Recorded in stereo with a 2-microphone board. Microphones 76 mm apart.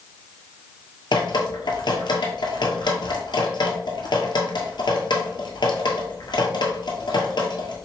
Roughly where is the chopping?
I don't hear chopping.